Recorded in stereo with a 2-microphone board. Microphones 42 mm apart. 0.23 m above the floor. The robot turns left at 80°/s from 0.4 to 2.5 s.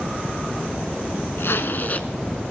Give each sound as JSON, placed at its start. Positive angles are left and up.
{"t": 1.4, "sound": "a zipper", "azimuth_deg": 90, "distance_m": 0.8}